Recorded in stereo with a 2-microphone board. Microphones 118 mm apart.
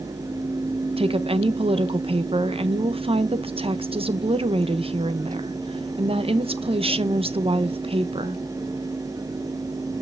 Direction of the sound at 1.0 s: 55° right (ahead or behind).